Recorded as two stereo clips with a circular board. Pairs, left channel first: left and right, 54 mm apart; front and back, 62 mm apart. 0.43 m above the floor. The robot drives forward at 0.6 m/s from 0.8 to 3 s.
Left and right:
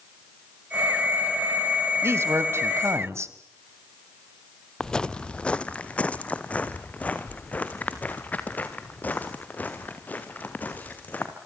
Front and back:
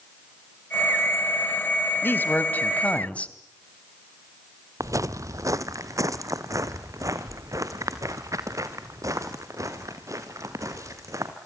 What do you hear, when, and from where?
2.0 s a man speaking: 50° right, 2.5 m; by 3.3 s 65° right, 2 m
4.8 s footsteps: 165° left, 0.7 m; by 11.3 s 150° left, 4 m